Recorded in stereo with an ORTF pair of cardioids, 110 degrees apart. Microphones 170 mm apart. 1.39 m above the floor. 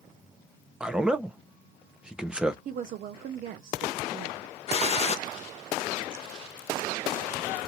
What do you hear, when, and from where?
0.8 s a man speaking: 5° right, 0.7 m
2.6 s a woman speaking: 55° right, 0.6 m
4.7 s a gunshot: 40° left, 0.6 m